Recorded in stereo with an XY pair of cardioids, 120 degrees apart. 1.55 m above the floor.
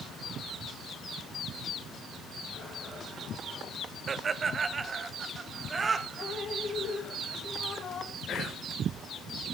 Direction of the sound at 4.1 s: 35° right.